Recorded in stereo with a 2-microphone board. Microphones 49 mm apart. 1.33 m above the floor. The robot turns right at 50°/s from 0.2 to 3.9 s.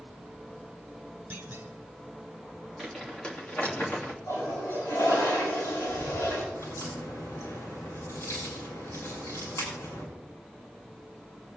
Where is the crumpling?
5° right (ahead or behind), 3 m; by 4.2 s 50° left (ahead or behind), 3 m.